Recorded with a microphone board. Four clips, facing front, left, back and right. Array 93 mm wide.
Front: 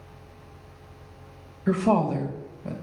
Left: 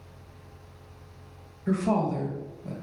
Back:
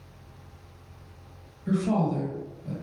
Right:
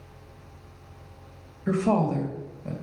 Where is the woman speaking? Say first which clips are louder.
Right 2 dB, front 3 dB; 25° right, 1.7 m.